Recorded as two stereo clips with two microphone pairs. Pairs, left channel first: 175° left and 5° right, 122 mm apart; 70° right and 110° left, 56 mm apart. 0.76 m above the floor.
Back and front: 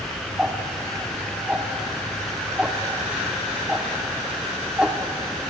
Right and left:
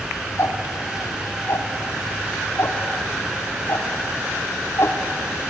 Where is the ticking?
90° right, 1.7 m.